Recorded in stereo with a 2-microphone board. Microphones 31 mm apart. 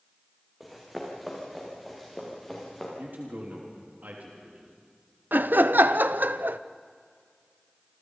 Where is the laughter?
80° right, 0.7 m.